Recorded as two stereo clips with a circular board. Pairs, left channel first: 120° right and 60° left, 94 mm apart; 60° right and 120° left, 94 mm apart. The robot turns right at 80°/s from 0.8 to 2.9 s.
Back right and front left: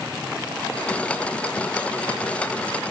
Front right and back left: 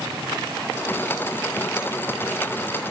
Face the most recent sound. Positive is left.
No sound to turn to.